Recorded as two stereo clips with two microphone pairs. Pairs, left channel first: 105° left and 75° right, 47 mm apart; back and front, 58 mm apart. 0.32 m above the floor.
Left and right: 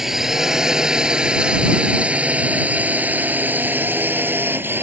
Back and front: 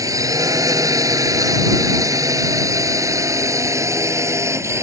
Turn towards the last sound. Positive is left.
turn(degrees=-35)